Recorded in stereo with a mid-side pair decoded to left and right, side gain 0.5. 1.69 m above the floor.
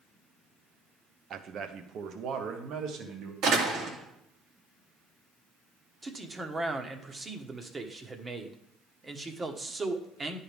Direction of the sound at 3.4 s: 70° right.